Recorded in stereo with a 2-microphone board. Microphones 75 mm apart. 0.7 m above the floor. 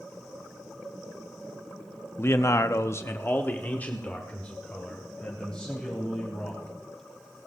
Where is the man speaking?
30° left (ahead or behind), 0.7 m; by 6.7 s 10° left (ahead or behind), 4 m.